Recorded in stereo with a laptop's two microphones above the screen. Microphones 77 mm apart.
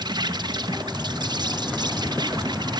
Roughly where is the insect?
Right.